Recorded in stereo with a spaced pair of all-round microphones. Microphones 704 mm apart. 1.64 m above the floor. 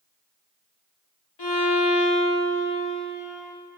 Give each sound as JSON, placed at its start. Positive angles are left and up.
{"t": 1.4, "sound": "a violin", "side_deg": 35, "distance_m": 0.8}